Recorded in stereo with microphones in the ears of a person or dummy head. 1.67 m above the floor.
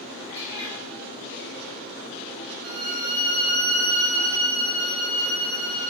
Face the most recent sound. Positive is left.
turn(degrees=-80)